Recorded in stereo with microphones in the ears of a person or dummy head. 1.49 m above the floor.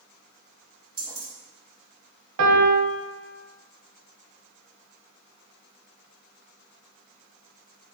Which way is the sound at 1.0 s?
20° right (ahead or behind).